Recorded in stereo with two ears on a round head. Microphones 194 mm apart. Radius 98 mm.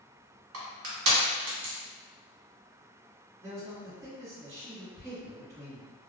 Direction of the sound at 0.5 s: 75° right (ahead or behind).